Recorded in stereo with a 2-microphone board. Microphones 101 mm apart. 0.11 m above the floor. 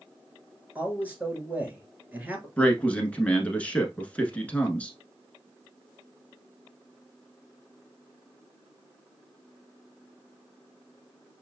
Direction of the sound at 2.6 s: 15° left (ahead or behind).